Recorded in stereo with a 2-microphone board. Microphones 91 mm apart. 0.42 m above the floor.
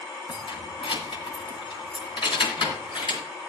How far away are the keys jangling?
About 1.8 m.